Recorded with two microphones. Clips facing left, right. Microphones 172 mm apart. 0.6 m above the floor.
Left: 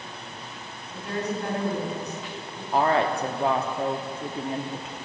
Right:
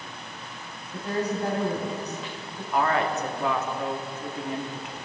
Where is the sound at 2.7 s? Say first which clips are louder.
Left 2 dB; 30° left (ahead or behind), 1.0 m.